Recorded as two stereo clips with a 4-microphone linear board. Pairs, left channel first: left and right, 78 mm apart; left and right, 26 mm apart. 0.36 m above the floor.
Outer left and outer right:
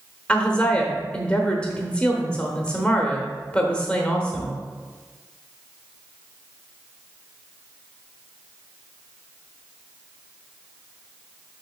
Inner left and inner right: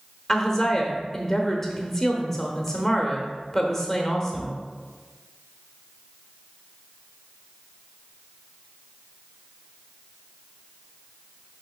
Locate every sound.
0.3 s a woman speaking: 15° left (ahead or behind), 0.8 m